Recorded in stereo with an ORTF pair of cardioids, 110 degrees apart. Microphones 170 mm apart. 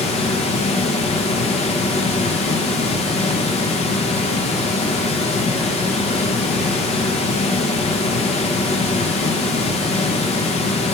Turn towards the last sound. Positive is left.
turn(degrees=40)